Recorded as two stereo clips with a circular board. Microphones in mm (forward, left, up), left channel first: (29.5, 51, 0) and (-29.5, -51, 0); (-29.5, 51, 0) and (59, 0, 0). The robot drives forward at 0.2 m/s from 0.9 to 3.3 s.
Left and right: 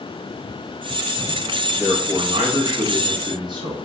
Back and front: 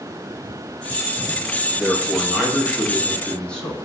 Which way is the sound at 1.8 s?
105° right.